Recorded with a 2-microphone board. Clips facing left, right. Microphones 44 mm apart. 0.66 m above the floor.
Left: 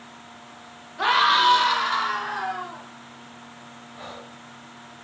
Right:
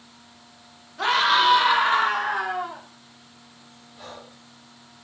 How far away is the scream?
About 1.1 m.